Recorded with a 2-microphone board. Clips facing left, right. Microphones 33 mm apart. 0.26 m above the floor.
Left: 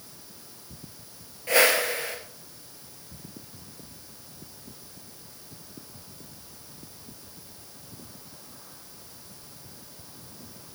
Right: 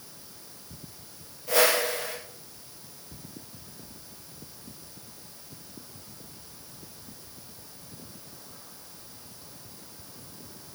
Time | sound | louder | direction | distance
1.5 | a whoosh | left 2 dB | 60° left (ahead or behind) | 1.9 m